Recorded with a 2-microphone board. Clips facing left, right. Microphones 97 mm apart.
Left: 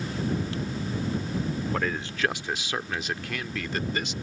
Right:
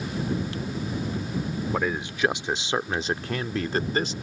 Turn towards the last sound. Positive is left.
turn(degrees=-35)  # may be behind; listen again after turning